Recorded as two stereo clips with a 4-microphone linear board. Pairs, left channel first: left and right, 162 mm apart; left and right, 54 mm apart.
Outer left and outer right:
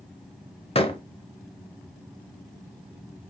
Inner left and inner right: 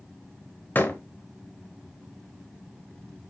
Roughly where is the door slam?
Left.